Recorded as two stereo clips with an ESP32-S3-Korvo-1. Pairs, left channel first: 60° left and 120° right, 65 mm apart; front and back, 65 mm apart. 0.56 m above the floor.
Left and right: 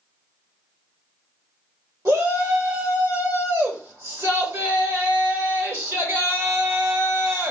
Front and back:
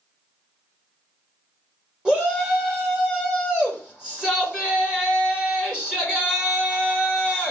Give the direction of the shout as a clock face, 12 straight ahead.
4 o'clock.